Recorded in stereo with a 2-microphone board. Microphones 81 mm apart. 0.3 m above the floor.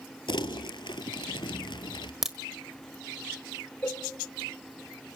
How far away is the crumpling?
About 1.2 m.